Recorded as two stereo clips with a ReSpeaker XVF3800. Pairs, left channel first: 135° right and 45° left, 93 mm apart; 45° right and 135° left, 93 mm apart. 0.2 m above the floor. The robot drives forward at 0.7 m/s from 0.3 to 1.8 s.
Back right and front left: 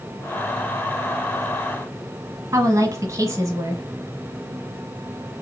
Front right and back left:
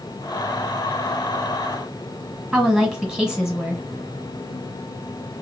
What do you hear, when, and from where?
2.5 s a woman speaking: 55° left, 1.2 m